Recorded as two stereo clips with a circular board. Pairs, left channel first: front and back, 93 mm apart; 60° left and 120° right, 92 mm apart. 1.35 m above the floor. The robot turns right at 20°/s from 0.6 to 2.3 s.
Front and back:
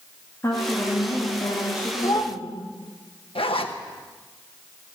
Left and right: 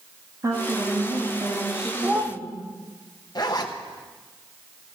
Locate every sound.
0.4 s a woman speaking: 65° right, 2.5 m; by 2.6 s 30° right, 2.5 m
2.0 s a child speaking: 50° right, 1.2 m; by 2.4 s 45° right, 1.2 m
3.4 s a zipper: 15° left, 1.1 m